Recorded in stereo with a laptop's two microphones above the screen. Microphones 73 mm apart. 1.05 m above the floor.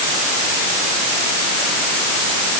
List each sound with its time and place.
Only background noise.